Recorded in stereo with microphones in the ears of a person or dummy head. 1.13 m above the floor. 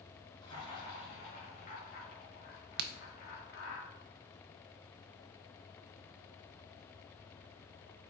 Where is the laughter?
25° left (ahead or behind), 3 m; by 3.8 s 75° left (ahead or behind), 2 m.